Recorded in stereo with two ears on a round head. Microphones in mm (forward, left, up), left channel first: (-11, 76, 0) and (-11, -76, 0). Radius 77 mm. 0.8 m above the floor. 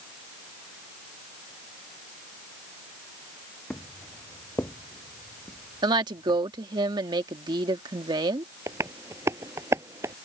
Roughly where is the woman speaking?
Right.